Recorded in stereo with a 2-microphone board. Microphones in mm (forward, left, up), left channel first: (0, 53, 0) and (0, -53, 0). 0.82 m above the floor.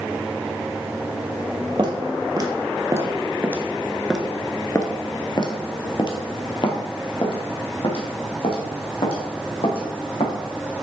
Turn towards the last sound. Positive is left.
turn(degrees=60)  # may be behind; listen again after turning